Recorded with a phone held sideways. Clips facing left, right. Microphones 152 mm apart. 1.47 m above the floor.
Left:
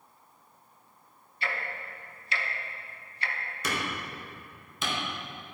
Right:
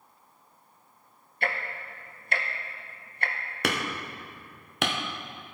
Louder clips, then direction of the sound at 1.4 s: Right 3 dB; 55° right (ahead or behind).